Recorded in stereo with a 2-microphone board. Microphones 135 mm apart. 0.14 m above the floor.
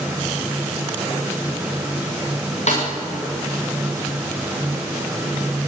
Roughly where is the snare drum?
Left.